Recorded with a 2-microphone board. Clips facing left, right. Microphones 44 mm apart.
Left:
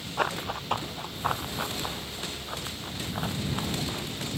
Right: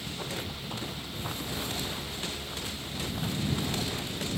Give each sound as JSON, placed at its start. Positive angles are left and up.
{"t": 0.2, "sound": "running footsteps", "side_deg": 60}